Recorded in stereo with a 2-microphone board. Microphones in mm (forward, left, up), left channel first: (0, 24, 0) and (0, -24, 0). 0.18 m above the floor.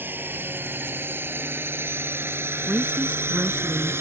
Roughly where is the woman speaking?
Right.